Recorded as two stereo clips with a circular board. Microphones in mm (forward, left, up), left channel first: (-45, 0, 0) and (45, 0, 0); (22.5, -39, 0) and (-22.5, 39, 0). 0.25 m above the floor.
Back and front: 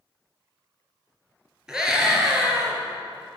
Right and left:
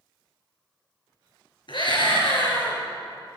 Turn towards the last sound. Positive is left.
turn(degrees=-85)